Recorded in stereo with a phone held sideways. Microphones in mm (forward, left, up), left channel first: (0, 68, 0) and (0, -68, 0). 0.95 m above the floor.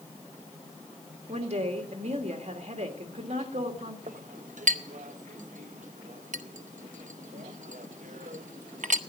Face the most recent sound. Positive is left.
turn(degrees=-70)  # may be behind; listen again after turning